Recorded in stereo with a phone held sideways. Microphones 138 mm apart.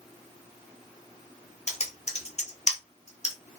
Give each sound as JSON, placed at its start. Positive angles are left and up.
{"t": 1.7, "sound": "typing on a keyboard", "side_deg": 50, "distance_m": 1.0}